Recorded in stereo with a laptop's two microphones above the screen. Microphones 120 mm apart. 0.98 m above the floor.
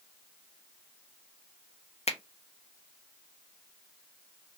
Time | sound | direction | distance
2.1 | a finger snap | 60° left (ahead or behind) | 0.5 m